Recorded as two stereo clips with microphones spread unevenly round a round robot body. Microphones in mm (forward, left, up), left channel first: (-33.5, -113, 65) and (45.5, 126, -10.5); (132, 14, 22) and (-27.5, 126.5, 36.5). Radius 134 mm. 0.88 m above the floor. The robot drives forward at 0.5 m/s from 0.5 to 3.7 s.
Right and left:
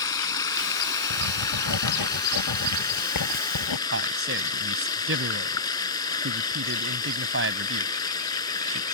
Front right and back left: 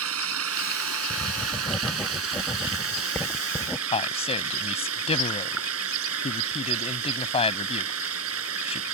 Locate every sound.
0.0 s running water: 175° left
1.1 s writing: 120° right; by 3.8 s 125° right
3.9 s a man speaking: 25° left